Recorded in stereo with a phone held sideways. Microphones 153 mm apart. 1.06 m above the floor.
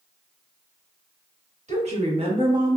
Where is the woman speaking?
45° right (ahead or behind), 1.3 m; by 2.8 s 20° right (ahead or behind), 0.8 m.